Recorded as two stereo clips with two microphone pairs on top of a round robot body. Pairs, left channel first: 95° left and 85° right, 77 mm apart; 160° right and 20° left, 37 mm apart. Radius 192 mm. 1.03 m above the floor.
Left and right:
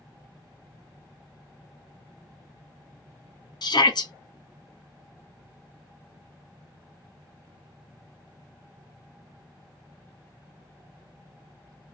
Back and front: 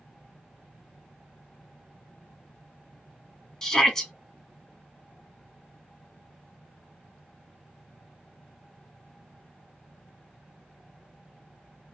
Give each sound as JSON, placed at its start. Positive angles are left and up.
{"t": 3.6, "sound": "a shout", "azimuth_deg": 120, "distance_m": 1.7}